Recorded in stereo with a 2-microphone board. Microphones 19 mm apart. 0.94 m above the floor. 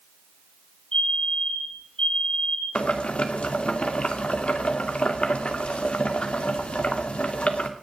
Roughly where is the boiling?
Left.